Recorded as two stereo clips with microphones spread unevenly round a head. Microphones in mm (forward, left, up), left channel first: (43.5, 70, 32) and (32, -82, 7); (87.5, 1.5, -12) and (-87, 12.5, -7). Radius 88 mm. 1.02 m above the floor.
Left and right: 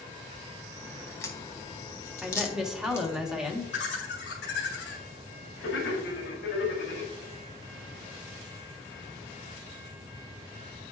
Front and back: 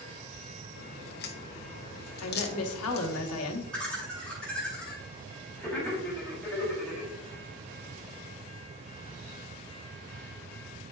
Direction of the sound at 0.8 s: 20° left.